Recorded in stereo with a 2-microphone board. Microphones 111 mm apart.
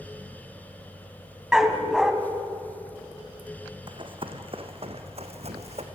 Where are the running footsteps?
45° right (ahead or behind), 2.5 m; by 5.8 s 70° right (ahead or behind), 2.5 m.